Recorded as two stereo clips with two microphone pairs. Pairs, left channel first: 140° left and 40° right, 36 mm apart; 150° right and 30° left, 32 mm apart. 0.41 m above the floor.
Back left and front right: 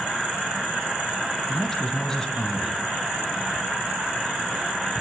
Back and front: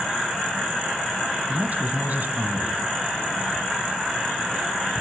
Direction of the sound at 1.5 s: 65° left.